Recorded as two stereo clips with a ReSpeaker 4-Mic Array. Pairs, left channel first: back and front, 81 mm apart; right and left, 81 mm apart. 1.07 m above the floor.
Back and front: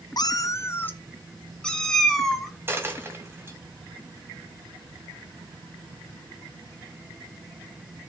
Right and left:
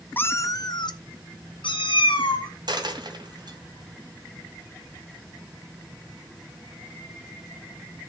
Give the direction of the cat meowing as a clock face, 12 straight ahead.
5 o'clock.